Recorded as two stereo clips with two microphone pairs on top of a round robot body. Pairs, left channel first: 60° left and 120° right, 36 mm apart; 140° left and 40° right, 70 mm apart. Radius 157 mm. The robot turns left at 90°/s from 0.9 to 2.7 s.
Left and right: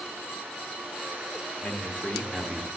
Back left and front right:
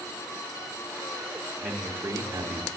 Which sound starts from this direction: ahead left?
A man speaking, at 1.6 s.